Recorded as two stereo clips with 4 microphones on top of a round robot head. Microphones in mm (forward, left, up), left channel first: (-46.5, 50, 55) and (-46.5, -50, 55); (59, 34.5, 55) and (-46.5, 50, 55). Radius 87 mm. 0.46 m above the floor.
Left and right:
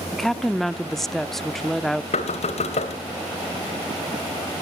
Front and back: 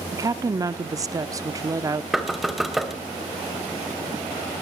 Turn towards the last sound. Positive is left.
turn(degrees=85)